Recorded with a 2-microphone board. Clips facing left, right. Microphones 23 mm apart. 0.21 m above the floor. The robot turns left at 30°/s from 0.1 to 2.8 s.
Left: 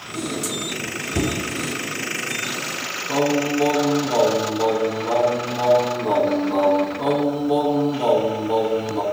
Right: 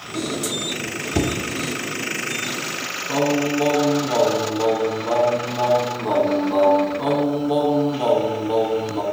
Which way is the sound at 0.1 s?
35° right (ahead or behind).